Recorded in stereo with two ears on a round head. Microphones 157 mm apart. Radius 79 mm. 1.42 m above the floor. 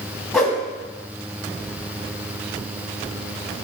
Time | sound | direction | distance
0.3 | a whoosh | centre (ahead or behind) | 2 m